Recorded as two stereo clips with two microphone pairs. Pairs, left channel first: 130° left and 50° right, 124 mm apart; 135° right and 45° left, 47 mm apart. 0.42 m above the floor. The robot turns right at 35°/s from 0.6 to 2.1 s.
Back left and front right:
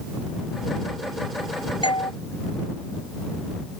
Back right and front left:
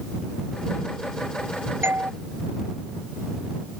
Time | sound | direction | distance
1.8 | a doorbell | 80° left | ?